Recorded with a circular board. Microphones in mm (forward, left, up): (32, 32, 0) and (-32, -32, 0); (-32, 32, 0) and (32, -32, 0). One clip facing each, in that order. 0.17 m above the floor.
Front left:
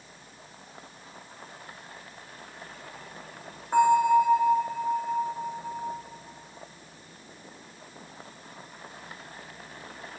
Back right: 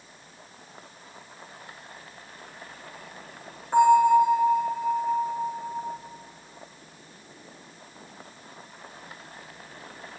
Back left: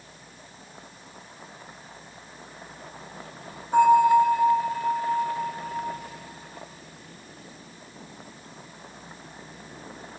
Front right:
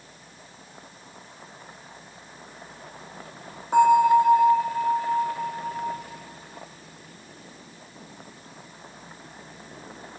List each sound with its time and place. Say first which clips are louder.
3.7 s a bell: back right 3 dB, even; 35° right, 5 m